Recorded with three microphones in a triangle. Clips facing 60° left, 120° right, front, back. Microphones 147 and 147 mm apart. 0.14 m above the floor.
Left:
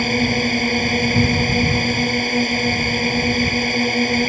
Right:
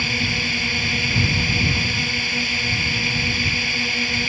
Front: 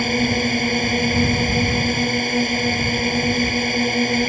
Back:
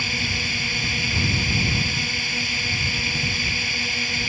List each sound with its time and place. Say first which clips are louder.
0.0 s a drone: left 9 dB, front 12 dB; 25° left